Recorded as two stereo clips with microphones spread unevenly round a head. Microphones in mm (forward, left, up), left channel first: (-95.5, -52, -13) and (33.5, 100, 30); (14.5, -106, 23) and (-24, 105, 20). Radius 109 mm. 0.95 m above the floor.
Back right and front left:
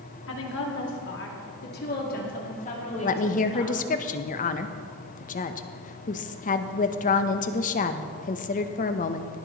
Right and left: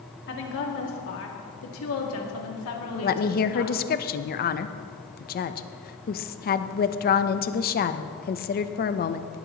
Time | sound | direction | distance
0.3 | a woman speaking | 120° right | 2.5 m
3.0 | a woman speaking | 110° right | 0.7 m